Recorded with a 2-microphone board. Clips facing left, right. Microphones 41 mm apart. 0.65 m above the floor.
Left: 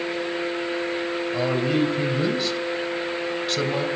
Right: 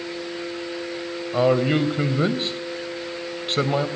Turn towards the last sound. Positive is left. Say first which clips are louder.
# right 5 dB
turn(degrees=-30)  # may be behind; listen again after turning